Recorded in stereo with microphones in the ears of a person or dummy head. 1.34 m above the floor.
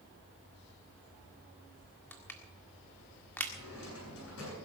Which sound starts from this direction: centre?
Crushing, at 2.1 s.